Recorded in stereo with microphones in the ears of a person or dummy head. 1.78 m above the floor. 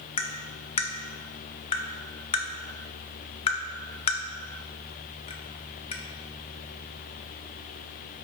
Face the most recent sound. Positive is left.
turn(degrees=30)  # may be behind; listen again after turning